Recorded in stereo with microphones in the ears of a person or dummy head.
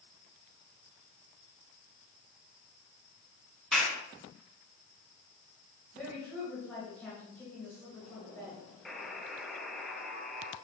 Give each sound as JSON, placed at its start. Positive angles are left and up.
{"t": 3.7, "sound": "a clap", "side_deg": 5, "distance_m": 3.0}
{"t": 5.9, "sound": "a woman speaking", "side_deg": 0, "distance_m": 3.0}
{"t": 8.8, "sound": "a buzzer", "side_deg": 5, "distance_m": 0.8}